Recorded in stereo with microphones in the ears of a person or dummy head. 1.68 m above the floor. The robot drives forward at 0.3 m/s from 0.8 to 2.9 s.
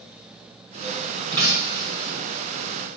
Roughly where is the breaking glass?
Right.